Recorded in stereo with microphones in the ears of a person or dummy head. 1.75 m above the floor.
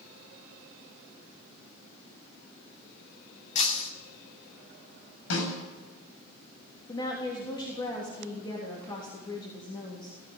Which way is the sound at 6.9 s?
20° left (ahead or behind).